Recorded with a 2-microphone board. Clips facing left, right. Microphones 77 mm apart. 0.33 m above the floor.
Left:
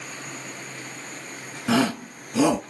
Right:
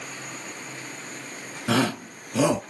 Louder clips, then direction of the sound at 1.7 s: Left 2 dB; 5° right (ahead or behind).